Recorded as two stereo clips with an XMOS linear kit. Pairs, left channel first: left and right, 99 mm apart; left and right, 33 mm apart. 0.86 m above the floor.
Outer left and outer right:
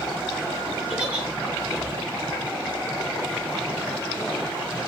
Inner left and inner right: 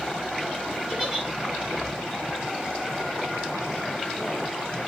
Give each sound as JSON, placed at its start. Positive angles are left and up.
{"t": 0.9, "sound": "a giggle", "side_deg": -15, "distance_m": 3.0}